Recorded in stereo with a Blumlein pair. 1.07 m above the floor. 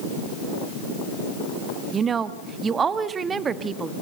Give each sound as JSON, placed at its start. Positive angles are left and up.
{"t": 1.9, "sound": "a woman speaking", "azimuth_deg": -20, "distance_m": 1.4}